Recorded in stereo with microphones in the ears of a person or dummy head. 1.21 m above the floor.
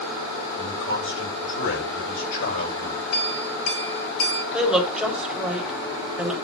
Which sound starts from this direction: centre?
A woman speaking, at 4.5 s.